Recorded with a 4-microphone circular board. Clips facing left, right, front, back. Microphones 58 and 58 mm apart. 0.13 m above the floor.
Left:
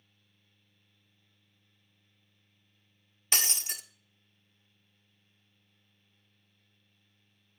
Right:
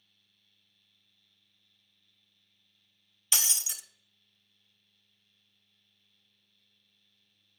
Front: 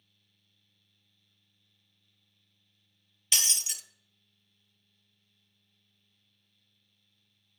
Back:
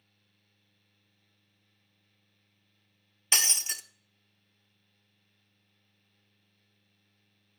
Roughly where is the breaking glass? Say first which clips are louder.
Left 2 dB, back 3 dB; behind left.